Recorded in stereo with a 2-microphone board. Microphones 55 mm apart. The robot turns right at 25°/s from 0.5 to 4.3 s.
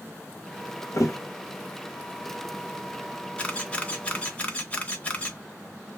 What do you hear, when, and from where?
0.9 s a thud: 70° left (ahead or behind), 0.7 m; by 1.2 s 65° left (ahead or behind), 0.7 m
3.4 s a camera shutter: 20° left (ahead or behind), 0.7 m; by 5.4 s 25° left (ahead or behind), 0.7 m